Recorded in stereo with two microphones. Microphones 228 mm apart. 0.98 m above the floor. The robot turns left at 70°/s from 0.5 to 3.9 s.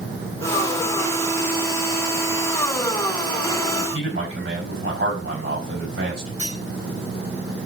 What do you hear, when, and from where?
3.7 s a man speaking: 75° right (ahead or behind), 4.5 m; by 6.3 s 60° right (ahead or behind), 4.5 m
6.4 s cutlery clinking: 80° right, 5.5 m